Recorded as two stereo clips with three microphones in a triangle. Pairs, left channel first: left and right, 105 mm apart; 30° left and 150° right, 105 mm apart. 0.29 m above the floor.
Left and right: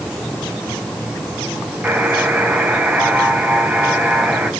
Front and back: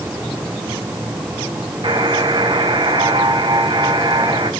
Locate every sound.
1.8 s a buzzer: 160° right, 1.7 m